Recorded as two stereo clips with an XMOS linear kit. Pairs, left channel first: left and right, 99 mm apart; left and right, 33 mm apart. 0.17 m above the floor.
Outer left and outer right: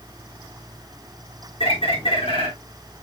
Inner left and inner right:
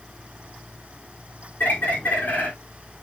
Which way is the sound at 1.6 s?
75° left (ahead or behind).